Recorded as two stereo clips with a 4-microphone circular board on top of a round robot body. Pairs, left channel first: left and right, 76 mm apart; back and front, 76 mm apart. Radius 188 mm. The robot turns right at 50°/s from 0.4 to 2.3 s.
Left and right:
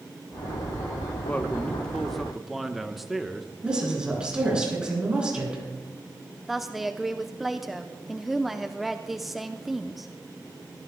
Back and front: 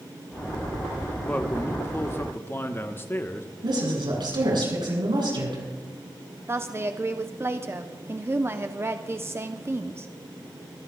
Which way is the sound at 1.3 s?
135° left.